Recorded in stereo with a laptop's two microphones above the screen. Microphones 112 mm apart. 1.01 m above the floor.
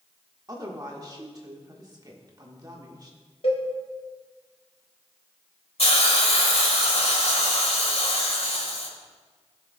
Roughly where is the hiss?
Left.